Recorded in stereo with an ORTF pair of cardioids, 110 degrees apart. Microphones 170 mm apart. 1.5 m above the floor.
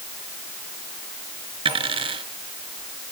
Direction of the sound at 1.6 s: 35° right.